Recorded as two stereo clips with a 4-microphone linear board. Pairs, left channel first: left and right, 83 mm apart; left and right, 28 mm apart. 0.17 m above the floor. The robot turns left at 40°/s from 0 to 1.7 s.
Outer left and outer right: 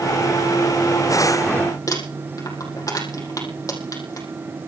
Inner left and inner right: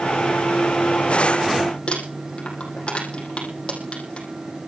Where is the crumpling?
40° left (ahead or behind), 5.5 m.